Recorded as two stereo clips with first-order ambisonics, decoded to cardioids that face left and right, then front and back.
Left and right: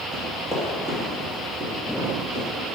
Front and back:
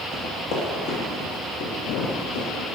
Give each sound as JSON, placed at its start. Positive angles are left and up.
{"t": 0.1, "sound": "running footsteps", "azimuth_deg": 15, "distance_m": 2.5}